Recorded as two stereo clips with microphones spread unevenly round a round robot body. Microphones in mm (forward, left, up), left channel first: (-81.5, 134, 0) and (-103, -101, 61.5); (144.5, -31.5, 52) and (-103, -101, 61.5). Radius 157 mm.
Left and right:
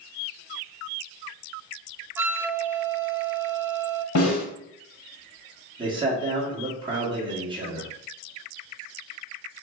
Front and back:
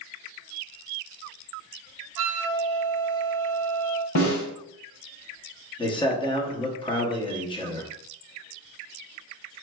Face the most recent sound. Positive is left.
turn(degrees=-20)